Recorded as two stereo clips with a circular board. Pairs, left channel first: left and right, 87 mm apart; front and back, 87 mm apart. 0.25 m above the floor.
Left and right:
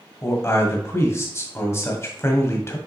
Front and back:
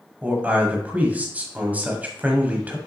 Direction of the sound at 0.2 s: 120° left.